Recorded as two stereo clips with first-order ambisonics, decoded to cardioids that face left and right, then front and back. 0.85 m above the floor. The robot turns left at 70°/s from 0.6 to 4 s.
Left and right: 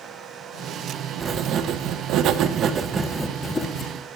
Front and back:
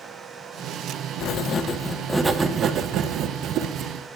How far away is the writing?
About 0.5 m.